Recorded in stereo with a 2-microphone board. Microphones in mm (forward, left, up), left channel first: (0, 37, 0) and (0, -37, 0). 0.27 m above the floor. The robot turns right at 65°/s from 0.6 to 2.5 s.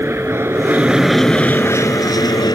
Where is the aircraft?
35° right; by 2.6 s 90° left.